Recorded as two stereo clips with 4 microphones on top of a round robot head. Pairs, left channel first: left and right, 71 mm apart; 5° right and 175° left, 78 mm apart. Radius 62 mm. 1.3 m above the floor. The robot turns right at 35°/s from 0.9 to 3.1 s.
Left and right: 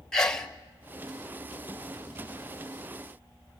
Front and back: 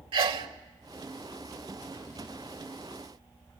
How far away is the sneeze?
About 1.8 m.